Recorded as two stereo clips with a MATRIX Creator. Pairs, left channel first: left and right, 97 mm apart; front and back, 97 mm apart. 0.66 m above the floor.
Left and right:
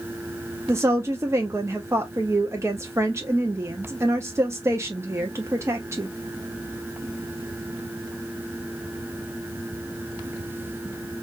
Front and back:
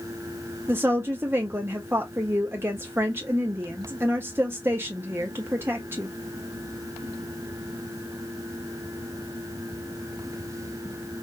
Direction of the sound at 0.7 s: 130° right.